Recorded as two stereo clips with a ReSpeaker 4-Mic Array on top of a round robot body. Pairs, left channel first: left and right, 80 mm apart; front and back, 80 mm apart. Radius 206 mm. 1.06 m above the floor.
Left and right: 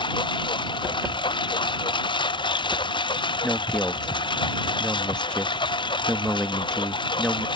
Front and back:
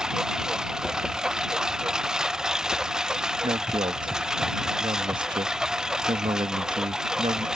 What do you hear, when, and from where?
0.0 s a lawn mower: 100° left
3.4 s a man speaking: 170° left